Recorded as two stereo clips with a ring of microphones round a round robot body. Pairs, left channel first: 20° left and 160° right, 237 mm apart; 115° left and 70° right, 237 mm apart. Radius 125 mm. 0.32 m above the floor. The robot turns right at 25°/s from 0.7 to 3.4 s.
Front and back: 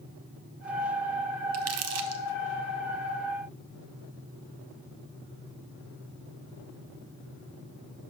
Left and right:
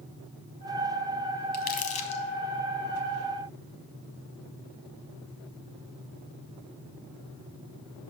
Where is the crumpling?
165° left, 0.7 m; by 2.2 s 175° right, 0.7 m.